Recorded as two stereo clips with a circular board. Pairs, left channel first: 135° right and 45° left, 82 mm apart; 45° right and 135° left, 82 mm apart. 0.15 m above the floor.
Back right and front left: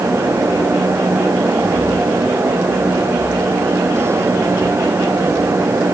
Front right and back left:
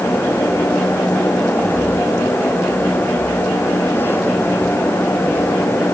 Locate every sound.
Only background noise.